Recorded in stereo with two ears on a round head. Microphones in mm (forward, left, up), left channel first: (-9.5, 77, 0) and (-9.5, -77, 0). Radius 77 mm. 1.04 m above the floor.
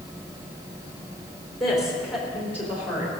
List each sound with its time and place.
1.6 s a woman speaking: centre (ahead or behind), 3.5 m; by 3.1 s 10° right (ahead or behind), 4.5 m